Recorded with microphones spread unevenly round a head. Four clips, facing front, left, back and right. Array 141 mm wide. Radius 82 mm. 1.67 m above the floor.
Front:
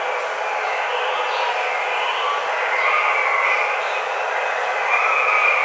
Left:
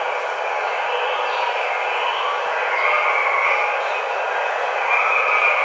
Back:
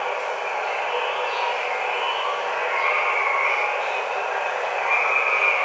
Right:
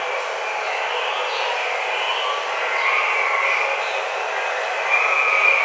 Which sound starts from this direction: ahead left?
Running water, at 0.0 s.